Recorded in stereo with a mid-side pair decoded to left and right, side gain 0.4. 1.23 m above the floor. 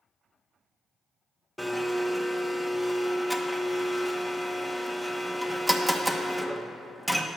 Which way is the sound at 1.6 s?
Straight ahead.